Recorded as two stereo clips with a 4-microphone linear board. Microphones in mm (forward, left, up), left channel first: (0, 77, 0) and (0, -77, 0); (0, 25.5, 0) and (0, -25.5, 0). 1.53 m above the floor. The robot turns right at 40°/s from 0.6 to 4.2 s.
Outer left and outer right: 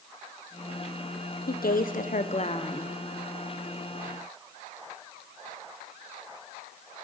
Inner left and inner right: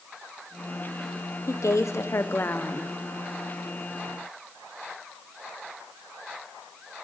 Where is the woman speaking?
90° left, 0.8 m; by 3.0 s 150° left, 0.8 m.